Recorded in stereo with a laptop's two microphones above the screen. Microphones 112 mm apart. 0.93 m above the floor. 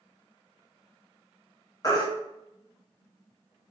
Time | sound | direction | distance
1.8 | a baby crying | 35° left (ahead or behind) | 0.6 m